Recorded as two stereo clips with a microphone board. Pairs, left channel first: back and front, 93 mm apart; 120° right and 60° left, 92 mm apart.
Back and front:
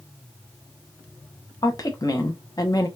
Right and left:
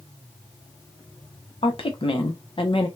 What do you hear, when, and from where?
1.6 s a woman speaking: 135° right, 0.8 m